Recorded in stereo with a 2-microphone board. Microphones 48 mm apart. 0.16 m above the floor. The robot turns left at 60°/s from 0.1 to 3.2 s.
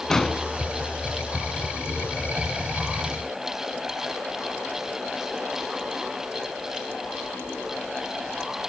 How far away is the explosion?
About 0.8 m.